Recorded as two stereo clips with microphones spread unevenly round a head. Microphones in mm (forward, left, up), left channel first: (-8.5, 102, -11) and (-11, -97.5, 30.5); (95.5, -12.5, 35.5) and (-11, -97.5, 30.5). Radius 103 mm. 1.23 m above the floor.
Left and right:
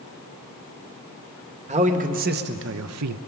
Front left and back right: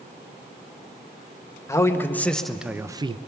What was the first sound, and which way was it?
A man speaking, 30° right.